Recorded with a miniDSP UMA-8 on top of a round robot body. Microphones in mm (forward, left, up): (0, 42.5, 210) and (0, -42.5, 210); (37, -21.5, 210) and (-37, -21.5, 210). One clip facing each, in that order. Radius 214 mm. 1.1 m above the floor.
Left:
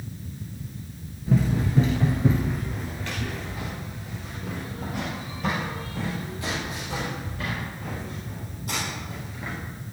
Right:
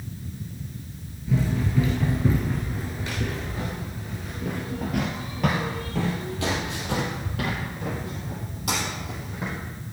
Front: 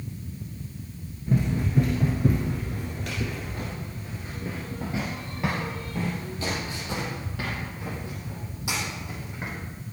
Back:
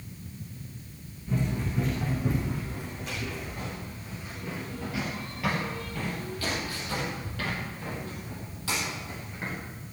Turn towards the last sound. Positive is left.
turn(degrees=-75)